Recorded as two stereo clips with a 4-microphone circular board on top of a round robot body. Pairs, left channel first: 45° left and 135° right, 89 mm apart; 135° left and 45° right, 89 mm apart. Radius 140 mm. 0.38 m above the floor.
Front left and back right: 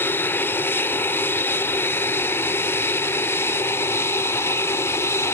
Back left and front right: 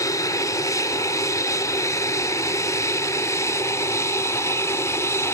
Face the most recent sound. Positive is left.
turn(degrees=90)